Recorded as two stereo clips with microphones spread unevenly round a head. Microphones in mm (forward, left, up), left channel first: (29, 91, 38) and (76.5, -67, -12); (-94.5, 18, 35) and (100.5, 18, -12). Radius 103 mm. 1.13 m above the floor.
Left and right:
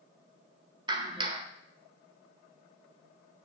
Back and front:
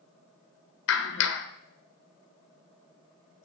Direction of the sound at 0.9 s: 145° right.